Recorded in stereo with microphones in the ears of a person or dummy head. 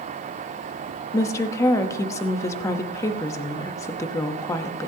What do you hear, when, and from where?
1.1 s a woman speaking: 15° left (ahead or behind), 1.0 m